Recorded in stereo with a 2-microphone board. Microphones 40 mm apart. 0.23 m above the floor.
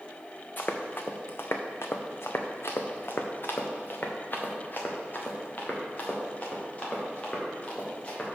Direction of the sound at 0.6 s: 45° left (ahead or behind).